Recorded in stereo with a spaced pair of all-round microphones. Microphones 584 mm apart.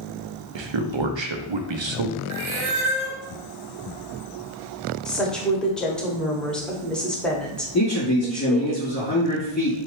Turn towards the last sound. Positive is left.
turn(degrees=25)  # may be behind; listen again after turning